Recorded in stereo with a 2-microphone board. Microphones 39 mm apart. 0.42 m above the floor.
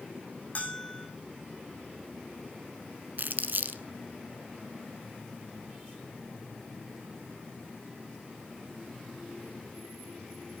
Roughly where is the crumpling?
Right.